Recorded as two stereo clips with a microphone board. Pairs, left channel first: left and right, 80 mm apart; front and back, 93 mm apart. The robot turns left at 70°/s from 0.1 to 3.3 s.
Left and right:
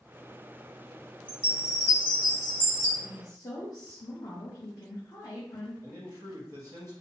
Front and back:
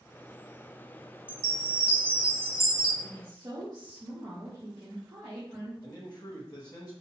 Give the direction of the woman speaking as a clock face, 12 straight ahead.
7 o'clock.